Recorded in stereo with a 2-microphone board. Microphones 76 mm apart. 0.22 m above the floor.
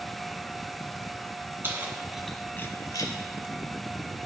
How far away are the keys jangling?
About 1.5 m.